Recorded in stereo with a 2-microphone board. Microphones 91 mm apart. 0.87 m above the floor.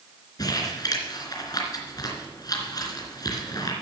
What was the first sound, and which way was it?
Crumpling, 45° left (ahead or behind).